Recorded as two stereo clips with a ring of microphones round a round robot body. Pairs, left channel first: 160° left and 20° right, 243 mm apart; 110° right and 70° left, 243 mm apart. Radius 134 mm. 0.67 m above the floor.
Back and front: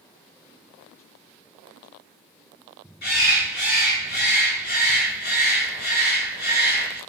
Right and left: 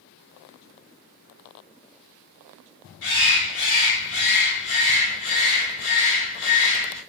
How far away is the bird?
About 1.5 m.